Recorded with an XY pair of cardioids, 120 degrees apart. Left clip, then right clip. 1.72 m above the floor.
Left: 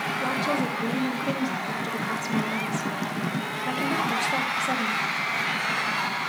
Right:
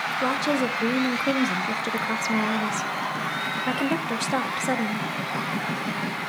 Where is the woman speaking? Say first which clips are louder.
Right 3 dB; 35° right, 0.5 m.